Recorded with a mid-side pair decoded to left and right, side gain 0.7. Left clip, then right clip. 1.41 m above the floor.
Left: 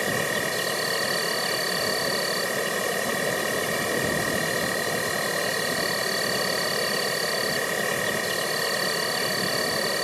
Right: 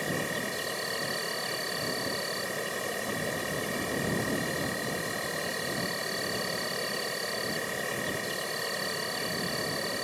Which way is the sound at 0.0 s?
30° left.